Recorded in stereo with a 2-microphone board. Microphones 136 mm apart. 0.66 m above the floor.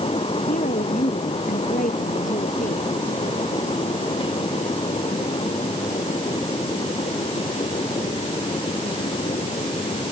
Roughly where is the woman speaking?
Left.